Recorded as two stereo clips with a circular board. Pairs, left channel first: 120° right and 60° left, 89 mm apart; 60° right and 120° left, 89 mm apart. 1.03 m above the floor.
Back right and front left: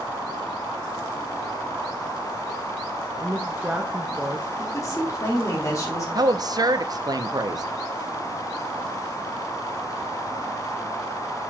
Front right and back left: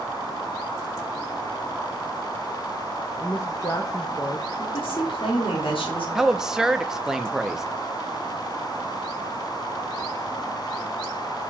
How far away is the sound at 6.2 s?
About 0.6 m.